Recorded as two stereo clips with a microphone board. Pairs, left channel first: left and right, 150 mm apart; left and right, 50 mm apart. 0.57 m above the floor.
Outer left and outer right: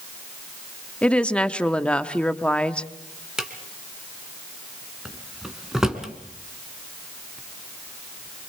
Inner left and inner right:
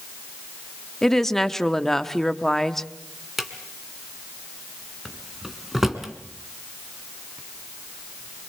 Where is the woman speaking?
10° left (ahead or behind), 1.0 m.